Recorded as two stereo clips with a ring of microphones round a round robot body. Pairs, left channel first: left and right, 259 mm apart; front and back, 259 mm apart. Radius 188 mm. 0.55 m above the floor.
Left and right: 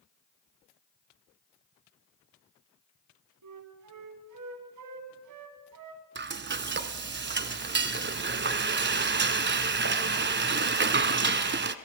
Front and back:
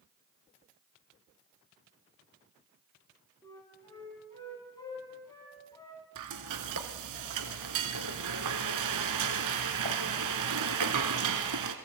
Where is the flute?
80° right, 2.5 m.